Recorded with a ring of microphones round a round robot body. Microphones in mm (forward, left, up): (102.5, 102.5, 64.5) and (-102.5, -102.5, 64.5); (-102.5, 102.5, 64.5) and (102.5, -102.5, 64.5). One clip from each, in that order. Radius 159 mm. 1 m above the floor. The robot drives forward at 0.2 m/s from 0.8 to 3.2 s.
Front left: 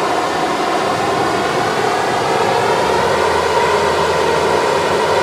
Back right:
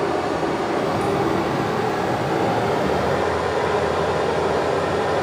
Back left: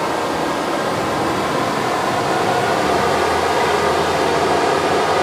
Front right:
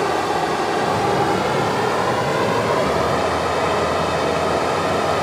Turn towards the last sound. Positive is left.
turn(degrees=80)